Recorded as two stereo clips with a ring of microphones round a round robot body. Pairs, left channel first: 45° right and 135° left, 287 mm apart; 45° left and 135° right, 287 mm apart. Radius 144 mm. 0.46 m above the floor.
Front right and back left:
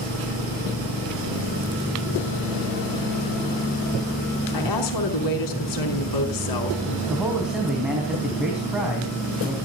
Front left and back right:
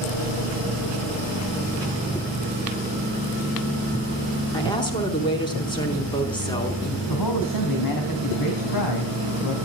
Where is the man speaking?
50° left, 3.5 m.